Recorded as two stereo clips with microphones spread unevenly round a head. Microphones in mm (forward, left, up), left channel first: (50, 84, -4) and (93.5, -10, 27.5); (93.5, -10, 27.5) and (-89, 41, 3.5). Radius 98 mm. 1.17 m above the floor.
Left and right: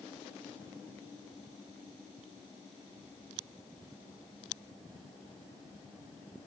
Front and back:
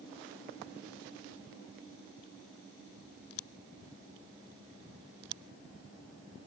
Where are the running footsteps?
No running footsteps in this recording.